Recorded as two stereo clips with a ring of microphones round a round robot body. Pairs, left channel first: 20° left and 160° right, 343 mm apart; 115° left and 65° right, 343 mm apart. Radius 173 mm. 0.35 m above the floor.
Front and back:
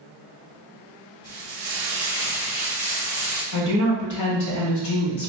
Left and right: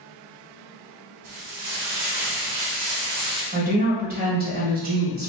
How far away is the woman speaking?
About 1.7 m.